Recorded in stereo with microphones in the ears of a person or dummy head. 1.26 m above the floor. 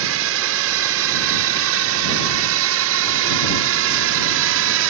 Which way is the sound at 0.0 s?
70° right (ahead or behind).